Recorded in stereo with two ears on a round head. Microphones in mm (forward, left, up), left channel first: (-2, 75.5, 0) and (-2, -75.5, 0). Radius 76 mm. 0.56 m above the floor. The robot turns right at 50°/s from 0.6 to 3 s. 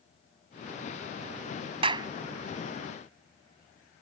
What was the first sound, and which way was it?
A clap, 35° right (ahead or behind).